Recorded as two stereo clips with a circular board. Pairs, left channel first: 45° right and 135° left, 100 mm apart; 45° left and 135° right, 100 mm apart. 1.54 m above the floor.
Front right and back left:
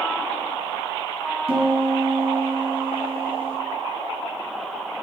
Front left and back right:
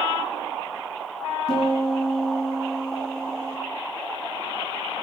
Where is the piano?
105° left, 2.5 m.